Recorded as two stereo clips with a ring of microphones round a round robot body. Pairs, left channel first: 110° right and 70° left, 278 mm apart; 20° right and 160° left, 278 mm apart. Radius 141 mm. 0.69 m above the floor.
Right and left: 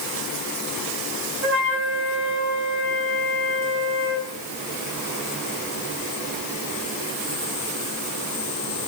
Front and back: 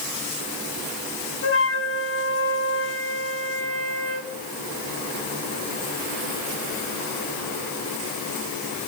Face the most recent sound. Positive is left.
turn(degrees=20)